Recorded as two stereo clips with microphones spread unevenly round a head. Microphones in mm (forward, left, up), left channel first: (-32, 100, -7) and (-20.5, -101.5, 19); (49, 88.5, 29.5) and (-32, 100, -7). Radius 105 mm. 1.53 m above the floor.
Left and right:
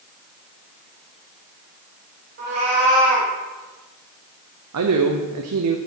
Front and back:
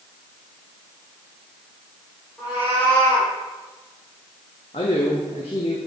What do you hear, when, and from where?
2.4 s a cat meowing: 75° right, 1.9 m
4.7 s a man speaking: 70° right, 0.5 m